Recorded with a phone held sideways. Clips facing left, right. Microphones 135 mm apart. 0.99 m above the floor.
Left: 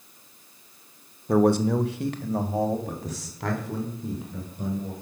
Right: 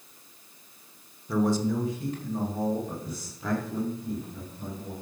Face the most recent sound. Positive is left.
turn(degrees=80)